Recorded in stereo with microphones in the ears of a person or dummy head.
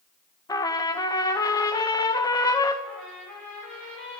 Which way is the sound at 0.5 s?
20° left (ahead or behind).